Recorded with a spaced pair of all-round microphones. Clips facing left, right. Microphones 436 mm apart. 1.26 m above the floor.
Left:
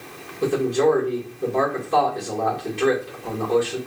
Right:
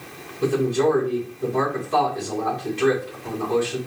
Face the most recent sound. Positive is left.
turn(degrees=-5)  # may be behind; listen again after turning